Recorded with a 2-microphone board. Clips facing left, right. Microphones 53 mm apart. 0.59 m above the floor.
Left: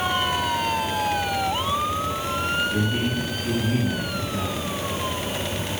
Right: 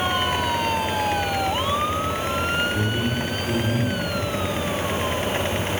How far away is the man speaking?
About 4.5 m.